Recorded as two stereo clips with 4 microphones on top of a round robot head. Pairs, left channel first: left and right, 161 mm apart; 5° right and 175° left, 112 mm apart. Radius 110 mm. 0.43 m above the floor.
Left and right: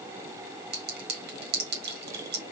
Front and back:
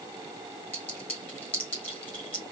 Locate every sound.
0.7 s a clink: 80° right, 1.4 m